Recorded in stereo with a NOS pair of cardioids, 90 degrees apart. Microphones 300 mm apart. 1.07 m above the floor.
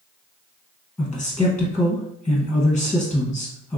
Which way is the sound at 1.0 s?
5° left.